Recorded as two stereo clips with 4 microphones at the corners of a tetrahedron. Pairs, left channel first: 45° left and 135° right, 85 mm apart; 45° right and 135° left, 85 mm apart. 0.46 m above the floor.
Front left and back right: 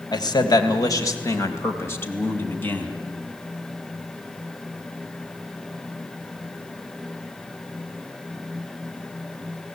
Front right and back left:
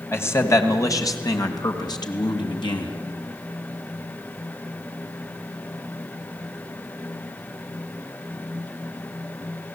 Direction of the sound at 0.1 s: 15° left.